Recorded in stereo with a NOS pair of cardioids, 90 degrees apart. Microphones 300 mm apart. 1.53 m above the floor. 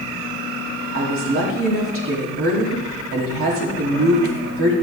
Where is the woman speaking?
45° right, 4 m.